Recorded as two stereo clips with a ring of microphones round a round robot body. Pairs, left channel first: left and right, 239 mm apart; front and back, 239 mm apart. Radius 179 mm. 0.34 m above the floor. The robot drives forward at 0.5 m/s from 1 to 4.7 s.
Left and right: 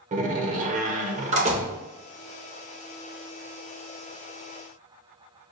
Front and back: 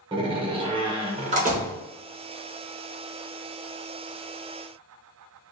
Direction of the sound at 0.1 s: 125° right.